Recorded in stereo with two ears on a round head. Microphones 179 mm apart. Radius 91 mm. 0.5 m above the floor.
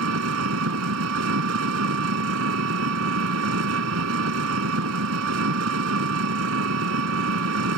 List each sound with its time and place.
0.0 s an engine running: 80° right